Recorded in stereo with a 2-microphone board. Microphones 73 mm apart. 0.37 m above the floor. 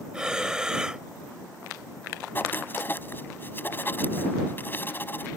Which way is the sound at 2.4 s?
30° left (ahead or behind).